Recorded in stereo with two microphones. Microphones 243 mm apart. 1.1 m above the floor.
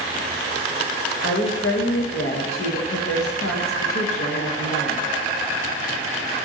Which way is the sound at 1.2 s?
65° left (ahead or behind).